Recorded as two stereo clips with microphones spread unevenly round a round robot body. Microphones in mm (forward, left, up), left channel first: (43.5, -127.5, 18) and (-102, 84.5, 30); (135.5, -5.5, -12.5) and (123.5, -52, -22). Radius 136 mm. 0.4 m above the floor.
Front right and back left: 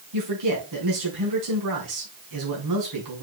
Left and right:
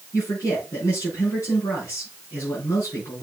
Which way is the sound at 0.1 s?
105° left.